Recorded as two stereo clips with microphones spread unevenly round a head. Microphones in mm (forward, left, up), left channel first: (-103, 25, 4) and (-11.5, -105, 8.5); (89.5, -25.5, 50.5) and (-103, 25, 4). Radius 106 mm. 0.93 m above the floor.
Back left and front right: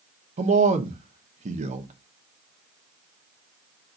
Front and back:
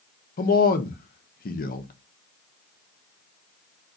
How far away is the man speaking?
About 0.8 m.